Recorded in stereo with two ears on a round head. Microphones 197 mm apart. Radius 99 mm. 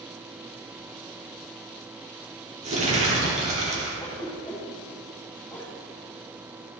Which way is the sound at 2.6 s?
35° right (ahead or behind).